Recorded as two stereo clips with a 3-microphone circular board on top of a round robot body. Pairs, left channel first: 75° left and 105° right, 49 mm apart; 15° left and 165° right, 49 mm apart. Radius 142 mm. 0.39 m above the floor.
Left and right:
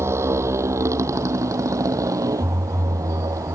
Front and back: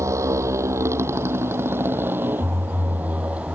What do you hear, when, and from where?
0.0 s a motorcycle: 140° right; by 3.5 s 100° right